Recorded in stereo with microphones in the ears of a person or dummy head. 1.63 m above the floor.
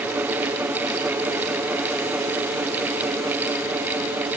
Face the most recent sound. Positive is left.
No sound to turn to.